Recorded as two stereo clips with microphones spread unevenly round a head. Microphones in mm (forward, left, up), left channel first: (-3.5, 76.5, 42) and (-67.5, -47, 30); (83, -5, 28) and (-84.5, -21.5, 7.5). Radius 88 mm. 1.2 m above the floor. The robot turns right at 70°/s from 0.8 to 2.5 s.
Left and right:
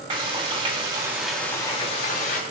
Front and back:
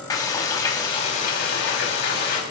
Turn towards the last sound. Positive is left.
turn(degrees=55)